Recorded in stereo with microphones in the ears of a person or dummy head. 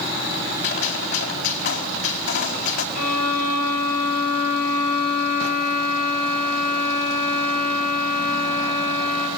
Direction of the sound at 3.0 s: 80° left.